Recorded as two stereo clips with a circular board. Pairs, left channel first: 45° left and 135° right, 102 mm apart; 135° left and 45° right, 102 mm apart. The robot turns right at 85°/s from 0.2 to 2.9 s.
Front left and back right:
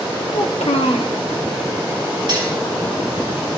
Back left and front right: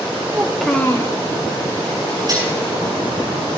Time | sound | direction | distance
0.3 | a child speaking | 20° left | 1.2 m
2.3 | cutlery clinking | 95° right | 8 m